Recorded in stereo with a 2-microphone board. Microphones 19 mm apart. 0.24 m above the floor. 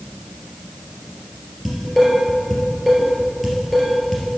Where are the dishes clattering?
5° left (ahead or behind), 3 m.